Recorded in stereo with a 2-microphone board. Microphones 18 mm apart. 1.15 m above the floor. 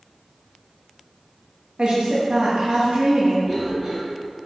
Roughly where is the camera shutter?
No camera shutter in this recording.